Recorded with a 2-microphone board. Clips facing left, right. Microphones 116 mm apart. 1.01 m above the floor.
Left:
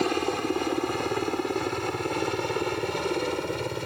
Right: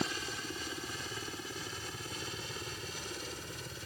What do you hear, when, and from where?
0.0 s a helicopter: 65° left (ahead or behind); by 3.9 s 70° left (ahead or behind)